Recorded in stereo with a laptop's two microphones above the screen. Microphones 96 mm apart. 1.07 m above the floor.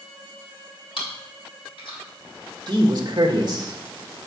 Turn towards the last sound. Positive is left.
turn(degrees=-45)  # may be behind; listen again after turning